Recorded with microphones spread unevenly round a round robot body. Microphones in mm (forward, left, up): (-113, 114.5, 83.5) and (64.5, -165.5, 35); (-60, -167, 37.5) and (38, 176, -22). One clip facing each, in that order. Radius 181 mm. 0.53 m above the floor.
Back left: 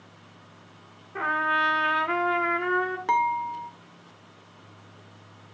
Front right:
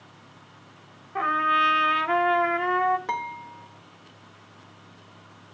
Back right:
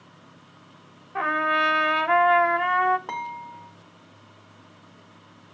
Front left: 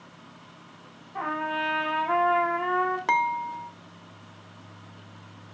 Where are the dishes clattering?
40° left, 1.1 m.